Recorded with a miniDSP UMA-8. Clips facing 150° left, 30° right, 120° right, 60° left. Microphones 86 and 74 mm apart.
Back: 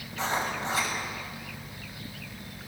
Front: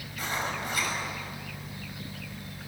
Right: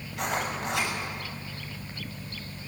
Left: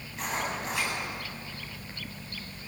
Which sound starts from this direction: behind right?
Writing, at 0.1 s.